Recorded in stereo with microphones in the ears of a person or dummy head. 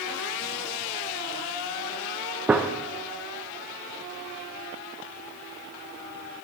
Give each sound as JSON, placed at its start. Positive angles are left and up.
{"t": 2.5, "sound": "a gunshot", "side_deg": -10, "distance_m": 0.8}